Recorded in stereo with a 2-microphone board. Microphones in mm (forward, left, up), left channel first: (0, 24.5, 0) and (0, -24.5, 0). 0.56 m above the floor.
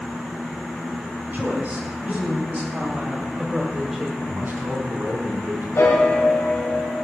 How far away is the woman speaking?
About 4.5 m.